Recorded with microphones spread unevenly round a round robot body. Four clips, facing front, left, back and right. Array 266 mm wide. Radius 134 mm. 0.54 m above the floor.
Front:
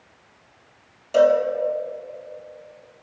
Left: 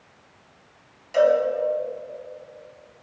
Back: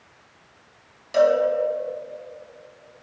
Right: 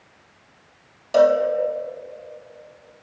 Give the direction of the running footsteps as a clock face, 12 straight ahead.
I don't hear running footsteps.